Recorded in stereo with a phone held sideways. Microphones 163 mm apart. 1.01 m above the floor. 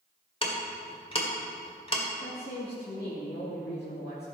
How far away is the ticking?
About 1.8 m.